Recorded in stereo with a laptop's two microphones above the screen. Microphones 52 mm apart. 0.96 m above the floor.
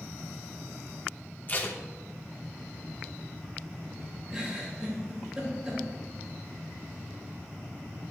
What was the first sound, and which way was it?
Tape being pulled, 35° left (ahead or behind).